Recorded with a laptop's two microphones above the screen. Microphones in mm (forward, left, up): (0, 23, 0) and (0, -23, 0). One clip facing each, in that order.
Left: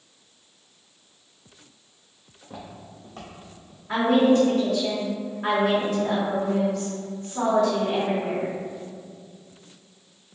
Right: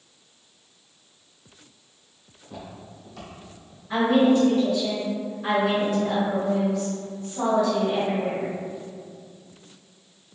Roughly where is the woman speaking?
Left.